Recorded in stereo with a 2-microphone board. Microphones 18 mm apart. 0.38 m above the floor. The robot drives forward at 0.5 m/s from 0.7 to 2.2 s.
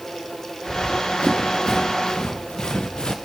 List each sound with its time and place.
0.7 s running footsteps: 80° left, 2.5 m; by 3.2 s 75° left (ahead or behind), 1.4 m